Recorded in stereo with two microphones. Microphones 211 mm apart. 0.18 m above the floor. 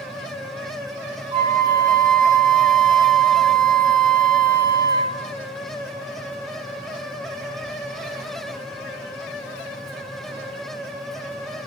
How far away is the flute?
About 2 m.